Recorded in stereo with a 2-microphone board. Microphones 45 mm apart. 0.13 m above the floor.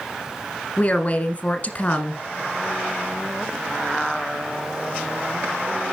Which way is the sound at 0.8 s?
35° left (ahead or behind).